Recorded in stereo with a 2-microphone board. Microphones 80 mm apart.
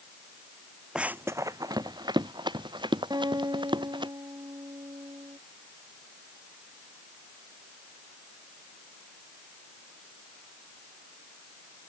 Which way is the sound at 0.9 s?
10° right (ahead or behind).